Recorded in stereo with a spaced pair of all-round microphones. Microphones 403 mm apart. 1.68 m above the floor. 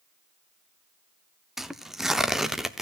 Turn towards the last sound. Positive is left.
turn(degrees=0)  # may be behind; listen again after turning